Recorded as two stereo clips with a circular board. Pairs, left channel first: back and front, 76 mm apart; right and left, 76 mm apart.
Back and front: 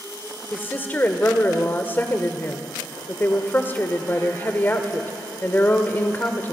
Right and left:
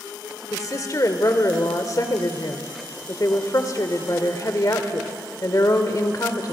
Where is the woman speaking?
120° right, 1.7 m.